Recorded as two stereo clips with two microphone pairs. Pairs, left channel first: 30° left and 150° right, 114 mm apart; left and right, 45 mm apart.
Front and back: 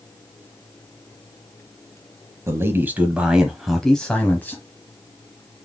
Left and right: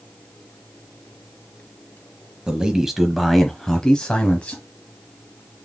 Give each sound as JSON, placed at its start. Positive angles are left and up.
{"t": 2.5, "sound": "a man speaking", "azimuth_deg": -140, "distance_m": 1.1}